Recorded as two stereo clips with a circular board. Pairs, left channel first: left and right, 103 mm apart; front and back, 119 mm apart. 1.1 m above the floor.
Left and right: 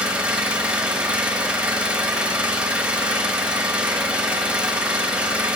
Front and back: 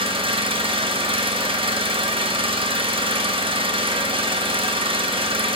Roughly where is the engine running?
Behind.